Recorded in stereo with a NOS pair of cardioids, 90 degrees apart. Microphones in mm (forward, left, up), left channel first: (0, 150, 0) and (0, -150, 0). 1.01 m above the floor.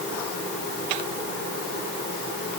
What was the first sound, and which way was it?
Only background noise.